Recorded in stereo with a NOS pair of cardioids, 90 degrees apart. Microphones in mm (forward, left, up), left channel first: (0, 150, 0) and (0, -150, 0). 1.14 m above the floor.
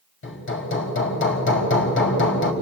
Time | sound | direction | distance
0.2 | hammering | 40° left | 4.5 m